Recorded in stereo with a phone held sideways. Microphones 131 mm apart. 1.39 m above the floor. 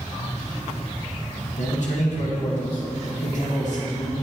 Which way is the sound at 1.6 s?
65° left (ahead or behind).